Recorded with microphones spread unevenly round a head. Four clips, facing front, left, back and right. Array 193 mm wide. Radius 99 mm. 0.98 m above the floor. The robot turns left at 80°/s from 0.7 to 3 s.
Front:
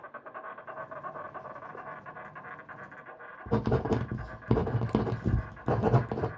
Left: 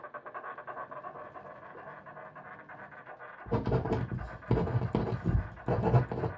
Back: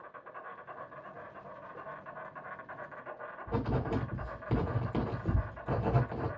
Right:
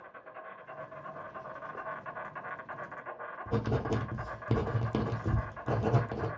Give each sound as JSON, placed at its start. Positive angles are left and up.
{"t": 0.0, "sound": "an insect", "azimuth_deg": 55, "distance_m": 0.8}
{"t": 3.5, "sound": "writing", "azimuth_deg": 15, "distance_m": 0.7}